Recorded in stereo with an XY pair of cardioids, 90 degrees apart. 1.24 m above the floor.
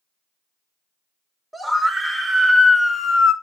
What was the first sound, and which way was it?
A scream, 10° right.